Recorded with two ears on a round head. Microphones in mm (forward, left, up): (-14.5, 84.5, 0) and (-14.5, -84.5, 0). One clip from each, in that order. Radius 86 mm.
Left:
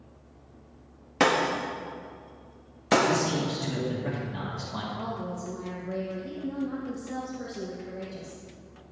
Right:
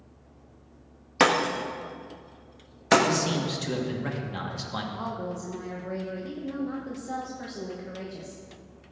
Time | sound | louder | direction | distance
1.2 | breaking glass | right 1 dB | 25° right (ahead or behind) | 0.7 m
3.0 | a man speaking | even | 60° right (ahead or behind) | 1.7 m
4.9 | a woman speaking | right 1 dB | 70° right (ahead or behind) | 1.1 m